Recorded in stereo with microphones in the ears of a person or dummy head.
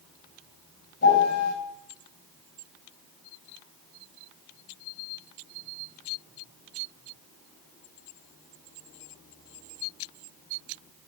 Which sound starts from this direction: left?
A piano, at 1.0 s.